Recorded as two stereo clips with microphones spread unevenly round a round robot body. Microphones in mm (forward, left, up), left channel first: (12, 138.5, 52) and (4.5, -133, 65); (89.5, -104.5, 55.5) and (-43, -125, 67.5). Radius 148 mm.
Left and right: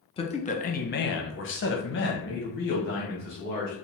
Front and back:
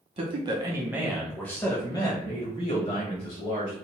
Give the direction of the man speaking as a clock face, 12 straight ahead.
7 o'clock.